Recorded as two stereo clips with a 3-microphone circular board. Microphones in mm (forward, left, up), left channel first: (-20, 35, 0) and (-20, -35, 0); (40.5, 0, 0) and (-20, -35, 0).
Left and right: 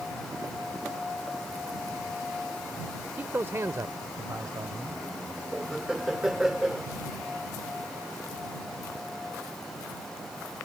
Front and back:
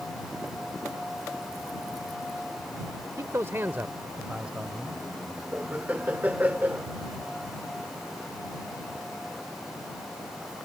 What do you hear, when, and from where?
3.2 s a man speaking: 145° right; by 5.0 s 70° right
5.5 s laughter: 165° right